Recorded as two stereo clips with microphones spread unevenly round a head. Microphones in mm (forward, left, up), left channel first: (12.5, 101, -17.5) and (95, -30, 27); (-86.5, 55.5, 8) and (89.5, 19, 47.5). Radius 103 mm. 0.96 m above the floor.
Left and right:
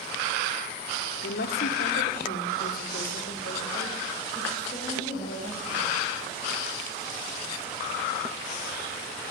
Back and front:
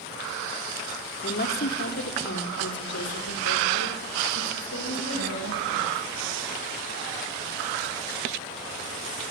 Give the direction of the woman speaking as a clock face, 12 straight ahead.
8 o'clock.